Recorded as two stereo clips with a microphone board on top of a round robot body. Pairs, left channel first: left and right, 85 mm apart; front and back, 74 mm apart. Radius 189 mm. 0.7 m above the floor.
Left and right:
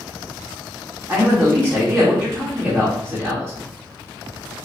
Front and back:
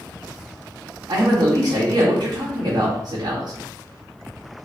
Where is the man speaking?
170° right, 1.3 m.